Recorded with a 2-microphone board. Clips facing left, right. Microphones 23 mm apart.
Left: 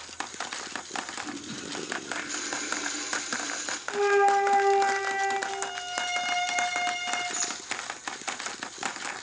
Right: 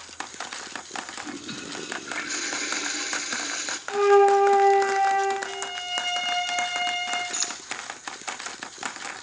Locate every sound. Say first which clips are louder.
1.2 s a toilet flushing: right 2 dB; 35° right (ahead or behind), 0.9 m
3.9 s a flute: right 5 dB; 75° right (ahead or behind), 3 m
5.5 s a violin: right 2 dB; 45° right (ahead or behind), 4.5 m
7.3 s keys jangling: right 2 dB; 40° right (ahead or behind), 1.4 m